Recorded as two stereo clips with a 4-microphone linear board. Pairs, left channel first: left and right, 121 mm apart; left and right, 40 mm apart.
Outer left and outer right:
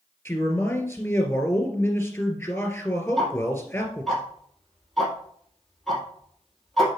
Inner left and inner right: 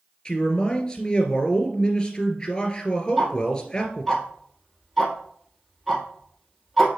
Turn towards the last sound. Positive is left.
turn(degrees=0)  # may be behind; listen again after turning